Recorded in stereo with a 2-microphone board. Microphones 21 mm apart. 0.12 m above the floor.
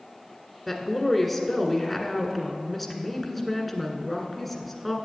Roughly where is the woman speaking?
Centre.